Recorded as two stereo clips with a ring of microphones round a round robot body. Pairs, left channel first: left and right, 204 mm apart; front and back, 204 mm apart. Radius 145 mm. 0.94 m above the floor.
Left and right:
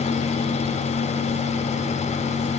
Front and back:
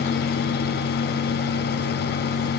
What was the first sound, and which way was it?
Only background noise.